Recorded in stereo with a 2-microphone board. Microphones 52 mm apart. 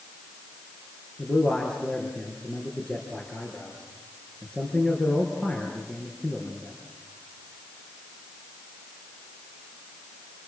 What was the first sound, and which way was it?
A man speaking, 25° left (ahead or behind).